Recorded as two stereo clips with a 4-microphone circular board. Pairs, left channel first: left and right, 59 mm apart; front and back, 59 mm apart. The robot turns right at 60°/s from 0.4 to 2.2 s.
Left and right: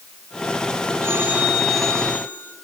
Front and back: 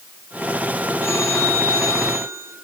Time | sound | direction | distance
1.0 | a phone ringing | 45° right | 8 m